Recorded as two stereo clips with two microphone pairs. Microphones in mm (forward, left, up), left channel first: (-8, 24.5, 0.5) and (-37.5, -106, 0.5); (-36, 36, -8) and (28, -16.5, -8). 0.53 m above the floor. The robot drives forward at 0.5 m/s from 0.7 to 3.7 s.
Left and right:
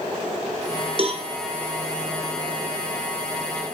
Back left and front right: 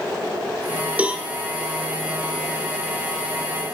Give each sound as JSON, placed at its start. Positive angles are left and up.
{"t": 1.0, "sound": "a cowbell", "azimuth_deg": -105, "distance_m": 0.9}